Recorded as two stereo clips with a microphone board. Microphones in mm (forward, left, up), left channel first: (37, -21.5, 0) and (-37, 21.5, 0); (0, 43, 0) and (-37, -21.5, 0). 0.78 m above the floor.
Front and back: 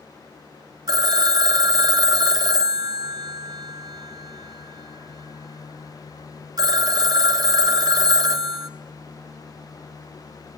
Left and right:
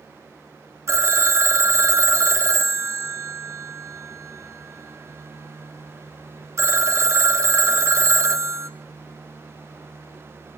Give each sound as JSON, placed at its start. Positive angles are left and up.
{"t": 0.9, "sound": "a phone ringing", "azimuth_deg": -170, "distance_m": 0.8}